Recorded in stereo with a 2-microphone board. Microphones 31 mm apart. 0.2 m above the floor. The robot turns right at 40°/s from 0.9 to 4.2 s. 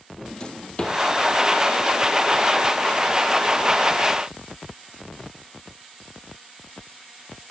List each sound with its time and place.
0.2 s a drawer: 30° left (ahead or behind), 1.9 m; by 1.0 s 35° left (ahead or behind), 1.9 m